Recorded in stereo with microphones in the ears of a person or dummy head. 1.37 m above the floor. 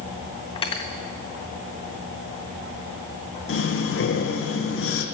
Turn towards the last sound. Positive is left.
turn(degrees=65)  # may be behind; listen again after turning